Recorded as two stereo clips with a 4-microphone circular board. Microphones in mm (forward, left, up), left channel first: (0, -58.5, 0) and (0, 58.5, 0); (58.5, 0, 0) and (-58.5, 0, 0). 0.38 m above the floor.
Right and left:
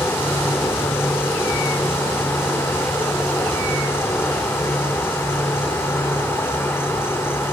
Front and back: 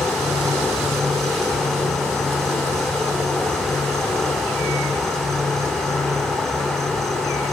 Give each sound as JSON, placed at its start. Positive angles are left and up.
{"t": 0.0, "sound": "an insect", "azimuth_deg": -80, "distance_m": 1.7}